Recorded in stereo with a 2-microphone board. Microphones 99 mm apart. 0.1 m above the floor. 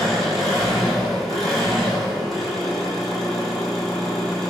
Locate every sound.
0.0 s an engine running: centre (ahead or behind), 1.1 m